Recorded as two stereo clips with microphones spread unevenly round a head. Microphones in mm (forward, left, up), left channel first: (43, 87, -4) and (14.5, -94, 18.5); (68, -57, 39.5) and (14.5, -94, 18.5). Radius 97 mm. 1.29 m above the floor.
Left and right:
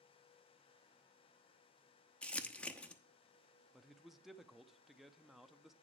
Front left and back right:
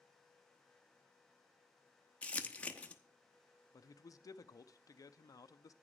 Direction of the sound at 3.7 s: 5° right.